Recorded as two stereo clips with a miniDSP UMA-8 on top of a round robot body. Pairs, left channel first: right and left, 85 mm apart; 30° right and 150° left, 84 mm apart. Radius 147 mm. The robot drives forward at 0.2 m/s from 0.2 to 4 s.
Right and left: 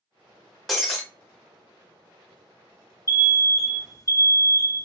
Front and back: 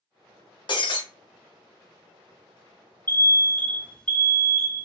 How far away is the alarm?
About 0.8 m.